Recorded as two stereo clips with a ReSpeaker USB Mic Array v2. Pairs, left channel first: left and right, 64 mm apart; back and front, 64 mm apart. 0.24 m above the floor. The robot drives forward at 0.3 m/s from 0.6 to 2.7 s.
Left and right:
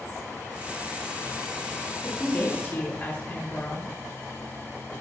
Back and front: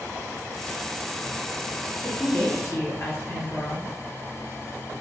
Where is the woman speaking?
140° left, 1.2 m; by 3.9 s 145° left, 1.3 m.